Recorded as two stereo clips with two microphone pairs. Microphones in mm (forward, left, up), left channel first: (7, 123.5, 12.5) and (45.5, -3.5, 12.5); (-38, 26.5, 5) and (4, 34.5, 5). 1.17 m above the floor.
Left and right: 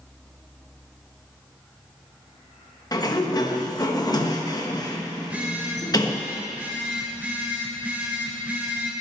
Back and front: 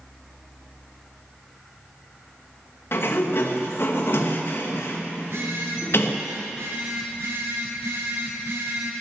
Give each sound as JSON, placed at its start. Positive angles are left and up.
{"t": 2.9, "sound": "a sliding door", "azimuth_deg": 165, "distance_m": 1.2}
{"t": 5.2, "sound": "a phone buzzing", "azimuth_deg": 10, "distance_m": 2.5}